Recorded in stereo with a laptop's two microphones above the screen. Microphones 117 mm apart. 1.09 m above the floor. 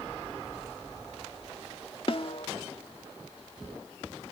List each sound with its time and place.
2.1 s a snare drum: 50° left (ahead or behind)